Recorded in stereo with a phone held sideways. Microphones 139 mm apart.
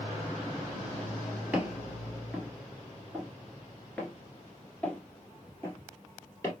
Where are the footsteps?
10° right (ahead or behind), 1.8 m; by 6.5 s 20° left (ahead or behind), 2 m.